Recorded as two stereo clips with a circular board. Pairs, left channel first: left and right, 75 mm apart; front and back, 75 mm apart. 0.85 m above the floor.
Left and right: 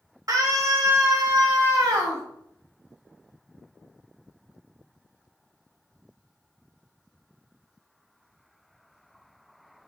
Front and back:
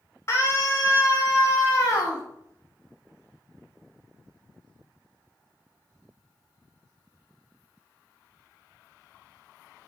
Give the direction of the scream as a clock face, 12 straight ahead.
2 o'clock.